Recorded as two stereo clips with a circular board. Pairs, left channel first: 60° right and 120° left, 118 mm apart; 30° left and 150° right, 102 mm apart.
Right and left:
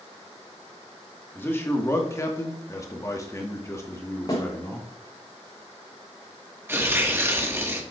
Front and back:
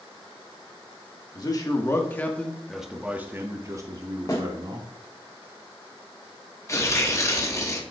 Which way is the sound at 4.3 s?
15° right.